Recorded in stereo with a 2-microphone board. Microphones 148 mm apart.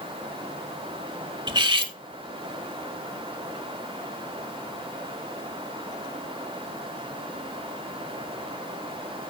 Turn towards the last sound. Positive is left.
turn(degrees=-30)  # may be behind; listen again after turning